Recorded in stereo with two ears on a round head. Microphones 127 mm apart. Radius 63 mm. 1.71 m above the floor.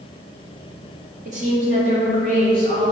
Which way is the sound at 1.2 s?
50° right (ahead or behind).